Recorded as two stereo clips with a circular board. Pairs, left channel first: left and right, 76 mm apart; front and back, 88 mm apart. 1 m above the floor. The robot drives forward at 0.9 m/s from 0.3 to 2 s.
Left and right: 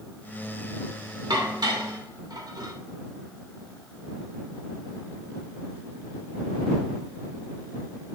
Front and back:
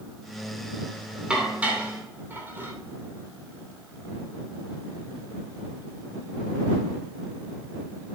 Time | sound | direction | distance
1.3 | dishes clattering | 100° right | 2 m